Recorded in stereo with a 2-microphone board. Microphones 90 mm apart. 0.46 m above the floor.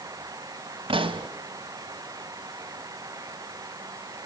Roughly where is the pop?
Right.